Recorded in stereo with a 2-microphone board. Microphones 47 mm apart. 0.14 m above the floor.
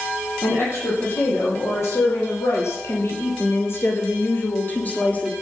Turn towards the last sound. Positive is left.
turn(degrees=25)  # may be behind; listen again after turning